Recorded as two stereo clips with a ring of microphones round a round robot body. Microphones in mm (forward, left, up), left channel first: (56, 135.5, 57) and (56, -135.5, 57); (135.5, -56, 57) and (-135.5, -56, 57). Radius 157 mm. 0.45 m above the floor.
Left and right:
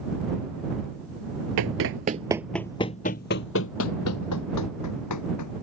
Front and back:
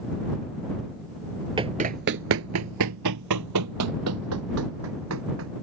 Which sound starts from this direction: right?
Running footsteps, at 1.6 s.